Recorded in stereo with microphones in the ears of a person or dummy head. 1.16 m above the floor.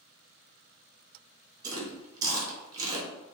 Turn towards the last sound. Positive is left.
turn(degrees=-25)  # may be behind; listen again after turning